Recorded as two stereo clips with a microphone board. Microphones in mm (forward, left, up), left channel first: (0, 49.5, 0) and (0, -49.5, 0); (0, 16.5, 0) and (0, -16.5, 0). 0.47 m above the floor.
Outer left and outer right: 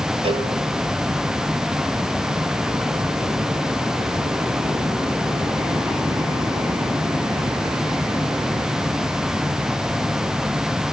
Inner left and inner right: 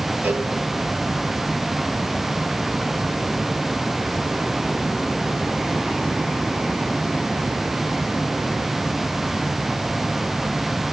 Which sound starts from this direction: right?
A cowbell, at 0.2 s.